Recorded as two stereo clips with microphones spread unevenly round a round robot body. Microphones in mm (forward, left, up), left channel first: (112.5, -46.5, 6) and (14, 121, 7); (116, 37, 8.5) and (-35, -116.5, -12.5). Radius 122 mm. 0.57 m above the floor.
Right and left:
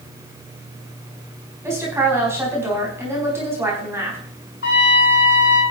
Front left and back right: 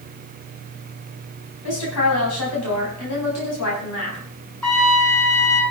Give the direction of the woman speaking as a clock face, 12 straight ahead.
11 o'clock.